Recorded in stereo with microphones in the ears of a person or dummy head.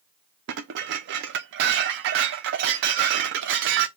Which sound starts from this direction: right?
Dishes clattering, at 0.5 s.